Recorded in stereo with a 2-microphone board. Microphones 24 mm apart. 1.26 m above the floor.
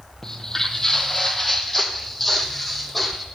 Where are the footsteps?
20° left (ahead or behind), 2 m; by 3.2 s centre (ahead or behind), 3.5 m.